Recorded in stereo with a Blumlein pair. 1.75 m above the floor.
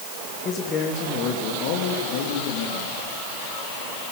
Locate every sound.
0.5 s a man speaking: 25° left, 3 m; by 2.9 s 60° left, 3.5 m